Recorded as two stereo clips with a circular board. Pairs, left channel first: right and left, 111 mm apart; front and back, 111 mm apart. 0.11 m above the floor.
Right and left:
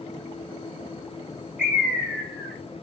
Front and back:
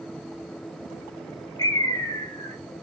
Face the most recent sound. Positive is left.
turn(degrees=15)